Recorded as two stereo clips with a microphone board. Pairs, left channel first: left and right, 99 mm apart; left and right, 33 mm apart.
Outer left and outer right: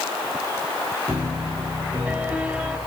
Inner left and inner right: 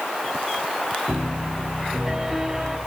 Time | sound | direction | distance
1.1 | a piano | 10° right (ahead or behind) | 2 m